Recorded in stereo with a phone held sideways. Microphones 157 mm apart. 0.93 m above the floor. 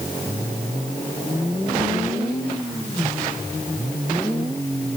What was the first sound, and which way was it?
Only background noise.